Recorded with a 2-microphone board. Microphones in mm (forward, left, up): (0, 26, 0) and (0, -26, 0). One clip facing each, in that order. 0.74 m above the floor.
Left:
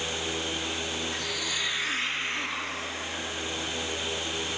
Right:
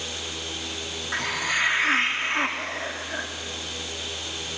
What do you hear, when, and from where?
1.1 s a hiss: 50° right (ahead or behind), 1.4 m